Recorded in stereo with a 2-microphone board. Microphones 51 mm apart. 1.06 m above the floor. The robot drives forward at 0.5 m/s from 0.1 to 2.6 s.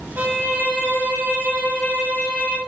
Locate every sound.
0.2 s a violin: 40° right (ahead or behind), 0.6 m; by 2.6 s 15° right (ahead or behind), 1.3 m